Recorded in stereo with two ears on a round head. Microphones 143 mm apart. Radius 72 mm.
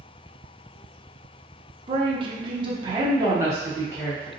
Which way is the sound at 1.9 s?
30° right (ahead or behind).